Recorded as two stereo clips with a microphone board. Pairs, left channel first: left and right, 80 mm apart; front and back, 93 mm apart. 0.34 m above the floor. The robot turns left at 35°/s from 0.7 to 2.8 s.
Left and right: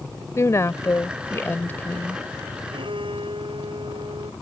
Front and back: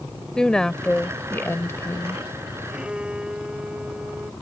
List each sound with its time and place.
0.4 s a woman speaking: 80° left; by 2.2 s 25° left
2.7 s a violin: 95° right; by 4.3 s 100° right